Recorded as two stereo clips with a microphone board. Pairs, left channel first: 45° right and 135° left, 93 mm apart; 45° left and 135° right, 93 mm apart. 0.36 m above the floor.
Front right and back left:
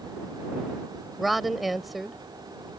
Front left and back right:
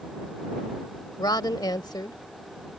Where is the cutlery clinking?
No cutlery clinking in this recording.